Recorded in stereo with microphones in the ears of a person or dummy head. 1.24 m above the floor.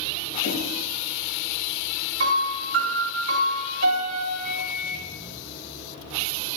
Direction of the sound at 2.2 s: 70° right (ahead or behind).